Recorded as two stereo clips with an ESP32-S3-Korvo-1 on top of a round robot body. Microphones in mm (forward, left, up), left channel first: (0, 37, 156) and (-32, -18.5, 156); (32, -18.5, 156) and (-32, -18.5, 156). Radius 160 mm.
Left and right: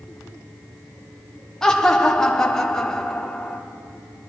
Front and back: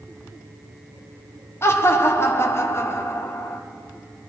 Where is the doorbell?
No doorbell in this recording.